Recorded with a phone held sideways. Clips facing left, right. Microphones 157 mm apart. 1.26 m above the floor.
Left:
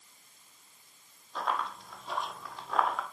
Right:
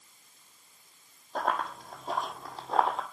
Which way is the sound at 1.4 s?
50° right (ahead or behind).